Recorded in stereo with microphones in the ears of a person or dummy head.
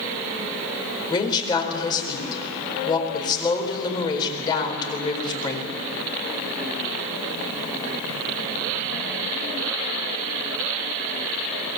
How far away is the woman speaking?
About 4 m.